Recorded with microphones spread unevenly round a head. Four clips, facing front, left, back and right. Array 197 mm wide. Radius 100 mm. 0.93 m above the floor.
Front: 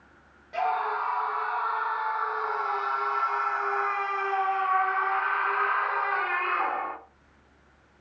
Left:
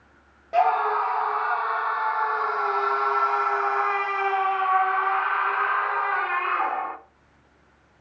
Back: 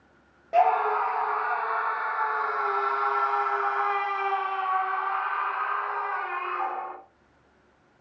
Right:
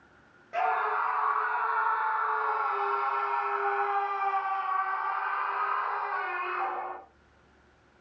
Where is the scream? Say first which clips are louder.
Left 7 dB, back 6 dB; 145° left, 2.5 m; by 7.0 s 60° left, 2.5 m.